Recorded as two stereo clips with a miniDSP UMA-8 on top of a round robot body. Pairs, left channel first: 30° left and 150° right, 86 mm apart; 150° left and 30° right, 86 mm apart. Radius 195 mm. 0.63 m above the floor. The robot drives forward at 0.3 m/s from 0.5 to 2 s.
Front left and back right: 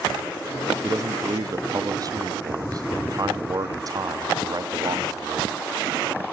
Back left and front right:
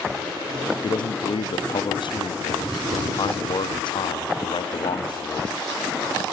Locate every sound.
0.8 s a man speaking: 160° left, 0.8 m; by 6.2 s 165° left, 1.1 m